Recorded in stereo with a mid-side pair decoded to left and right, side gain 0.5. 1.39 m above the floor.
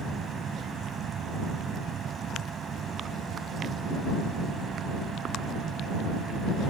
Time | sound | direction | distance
0.0 | a machine running | 50° right | ?